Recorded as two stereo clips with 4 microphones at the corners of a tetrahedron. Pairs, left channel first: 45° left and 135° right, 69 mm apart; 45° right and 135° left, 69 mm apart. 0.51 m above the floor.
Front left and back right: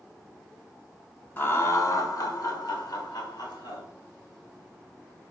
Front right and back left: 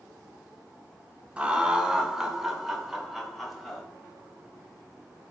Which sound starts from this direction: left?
Laughter, at 1.4 s.